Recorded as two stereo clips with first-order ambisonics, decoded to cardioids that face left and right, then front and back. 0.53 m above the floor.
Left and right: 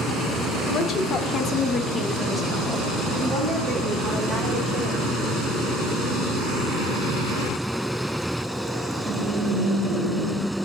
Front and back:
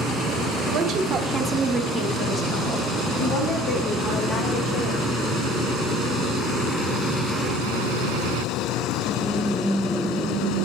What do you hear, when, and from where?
0.7 s a woman speaking: 140° left, 1.0 m; by 5.1 s 15° right, 1.9 m